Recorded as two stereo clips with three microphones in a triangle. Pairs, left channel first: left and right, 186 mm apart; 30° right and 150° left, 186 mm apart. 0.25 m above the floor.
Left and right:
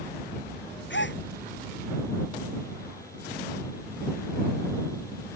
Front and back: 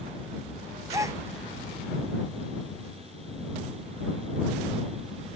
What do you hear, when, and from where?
0.9 s a gasp: 75° left